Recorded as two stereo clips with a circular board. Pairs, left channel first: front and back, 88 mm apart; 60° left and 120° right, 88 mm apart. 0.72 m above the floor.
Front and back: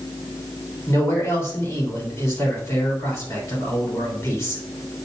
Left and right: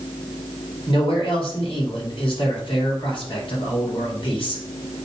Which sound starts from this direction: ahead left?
A man speaking, at 0.9 s.